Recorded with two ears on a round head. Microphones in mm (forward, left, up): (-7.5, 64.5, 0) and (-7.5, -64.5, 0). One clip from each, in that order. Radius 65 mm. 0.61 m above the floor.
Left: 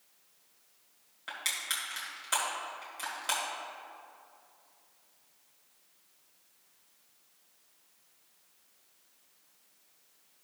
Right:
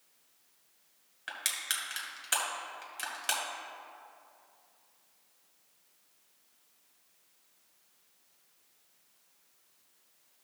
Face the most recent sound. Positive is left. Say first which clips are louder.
# left 1 dB
turn(degrees=-25)  # may be behind; listen again after turning